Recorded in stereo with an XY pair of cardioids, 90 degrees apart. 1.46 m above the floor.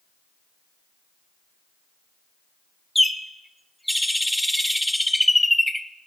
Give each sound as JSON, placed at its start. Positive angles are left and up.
{"t": 3.0, "sound": "a bird", "azimuth_deg": 0, "distance_m": 0.9}